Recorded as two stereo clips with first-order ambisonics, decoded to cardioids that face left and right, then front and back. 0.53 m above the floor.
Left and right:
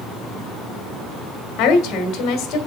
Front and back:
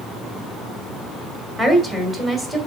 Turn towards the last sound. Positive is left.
turn(degrees=105)